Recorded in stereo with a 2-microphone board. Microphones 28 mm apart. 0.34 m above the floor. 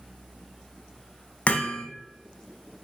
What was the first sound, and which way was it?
Hammering, 50° left (ahead or behind).